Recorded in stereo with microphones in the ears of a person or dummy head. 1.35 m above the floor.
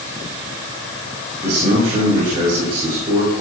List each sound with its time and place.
1.4 s a man speaking: 25° right (ahead or behind), 3 m